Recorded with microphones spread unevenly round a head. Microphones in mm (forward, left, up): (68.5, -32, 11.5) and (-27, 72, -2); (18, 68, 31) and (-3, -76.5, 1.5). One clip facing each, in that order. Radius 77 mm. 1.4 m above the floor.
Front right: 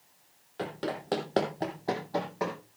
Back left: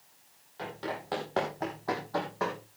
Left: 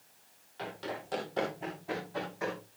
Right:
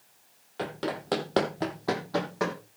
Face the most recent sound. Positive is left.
turn(degrees=-125)